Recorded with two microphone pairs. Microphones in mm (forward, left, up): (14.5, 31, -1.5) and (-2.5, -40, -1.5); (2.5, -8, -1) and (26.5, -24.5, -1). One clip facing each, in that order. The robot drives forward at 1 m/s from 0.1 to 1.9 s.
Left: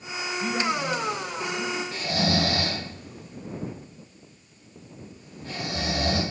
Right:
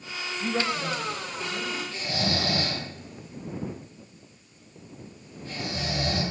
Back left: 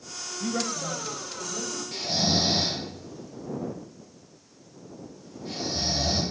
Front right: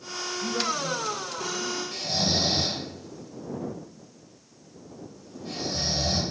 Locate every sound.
0.4 s a man speaking: 165° left, 2 m; by 1.8 s 170° left, 3.5 m
1.9 s snoring: 65° left, 3 m